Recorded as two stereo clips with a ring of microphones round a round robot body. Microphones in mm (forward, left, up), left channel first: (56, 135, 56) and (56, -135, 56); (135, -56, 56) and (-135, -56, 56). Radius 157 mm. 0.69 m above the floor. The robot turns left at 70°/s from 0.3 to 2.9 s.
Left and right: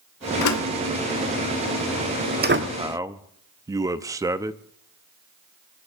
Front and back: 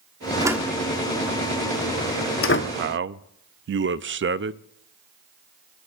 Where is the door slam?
105° left, 1.3 m; by 2.7 s 55° right, 1.3 m.